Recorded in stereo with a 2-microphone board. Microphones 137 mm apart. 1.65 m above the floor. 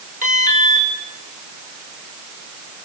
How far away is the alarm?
About 8.5 m.